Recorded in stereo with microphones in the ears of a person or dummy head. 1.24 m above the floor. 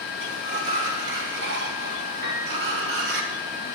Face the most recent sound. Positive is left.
turn(degrees=-55)  # may be behind; listen again after turning